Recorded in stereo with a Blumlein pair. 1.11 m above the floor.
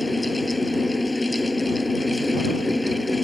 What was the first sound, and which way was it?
A fan, 5° left.